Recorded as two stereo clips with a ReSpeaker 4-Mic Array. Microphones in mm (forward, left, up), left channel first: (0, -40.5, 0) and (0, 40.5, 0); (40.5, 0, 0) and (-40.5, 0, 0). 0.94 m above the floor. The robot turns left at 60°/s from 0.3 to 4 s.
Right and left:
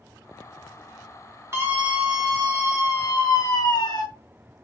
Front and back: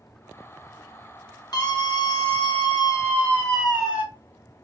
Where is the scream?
35° left, 1.1 m; by 4.0 s 115° right, 1.1 m.